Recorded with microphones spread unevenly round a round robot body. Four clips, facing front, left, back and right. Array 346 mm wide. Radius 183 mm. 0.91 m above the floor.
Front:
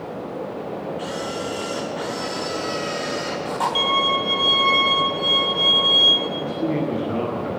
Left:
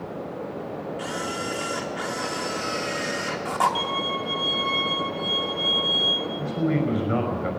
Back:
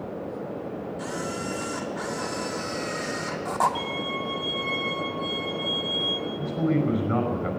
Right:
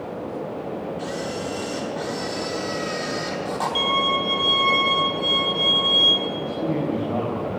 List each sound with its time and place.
1.0 s a camera shutter: straight behind, 0.6 m
3.8 s a violin: 30° right, 3.5 m
6.4 s a man speaking: 140° left, 5.5 m